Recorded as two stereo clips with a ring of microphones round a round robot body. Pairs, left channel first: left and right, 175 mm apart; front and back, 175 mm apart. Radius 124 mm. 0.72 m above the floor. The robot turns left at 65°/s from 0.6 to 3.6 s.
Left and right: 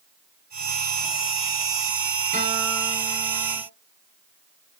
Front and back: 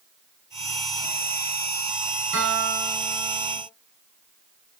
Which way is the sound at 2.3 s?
155° right.